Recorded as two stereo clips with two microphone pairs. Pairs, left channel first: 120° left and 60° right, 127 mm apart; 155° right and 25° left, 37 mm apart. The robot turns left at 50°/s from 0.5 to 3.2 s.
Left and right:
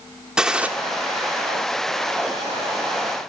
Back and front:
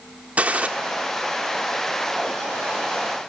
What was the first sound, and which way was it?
A gunshot, 20° left.